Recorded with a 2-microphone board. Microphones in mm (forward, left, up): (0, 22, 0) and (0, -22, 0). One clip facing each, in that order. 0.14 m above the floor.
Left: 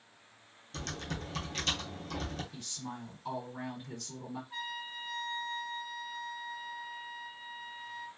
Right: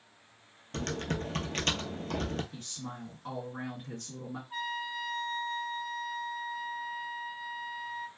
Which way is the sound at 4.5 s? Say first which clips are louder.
Right 8 dB; 20° right (ahead or behind).